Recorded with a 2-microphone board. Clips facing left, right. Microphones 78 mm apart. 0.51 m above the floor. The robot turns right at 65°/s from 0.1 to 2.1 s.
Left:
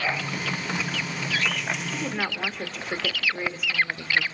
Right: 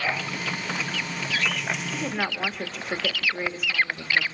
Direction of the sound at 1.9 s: 15° right (ahead or behind).